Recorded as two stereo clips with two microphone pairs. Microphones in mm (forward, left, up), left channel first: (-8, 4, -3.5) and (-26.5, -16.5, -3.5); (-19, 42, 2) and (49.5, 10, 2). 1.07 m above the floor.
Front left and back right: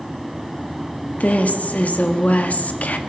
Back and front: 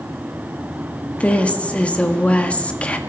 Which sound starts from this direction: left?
A woman speaking, at 1.2 s.